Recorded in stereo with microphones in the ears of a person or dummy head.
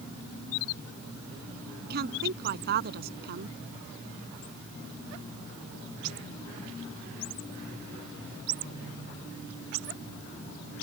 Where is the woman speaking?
60° right (ahead or behind).